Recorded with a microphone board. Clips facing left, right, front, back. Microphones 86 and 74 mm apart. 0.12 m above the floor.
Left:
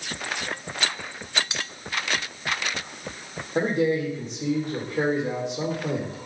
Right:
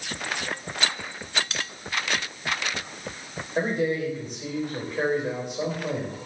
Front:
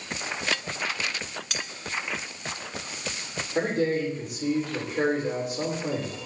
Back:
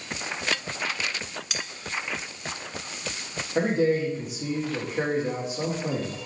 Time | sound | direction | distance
1.5 | cutlery clinking | 100° left | 0.6 m
3.5 | a man speaking | 100° left | 4.5 m